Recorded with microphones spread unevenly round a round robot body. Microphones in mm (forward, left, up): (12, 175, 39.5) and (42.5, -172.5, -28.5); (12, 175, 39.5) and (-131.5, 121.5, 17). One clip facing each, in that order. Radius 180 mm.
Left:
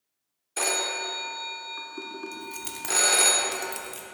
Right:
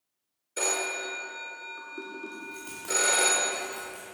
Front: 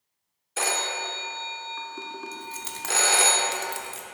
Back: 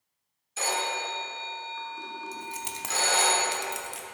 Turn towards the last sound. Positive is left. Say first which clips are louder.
# left 1 dB, even
turn(degrees=140)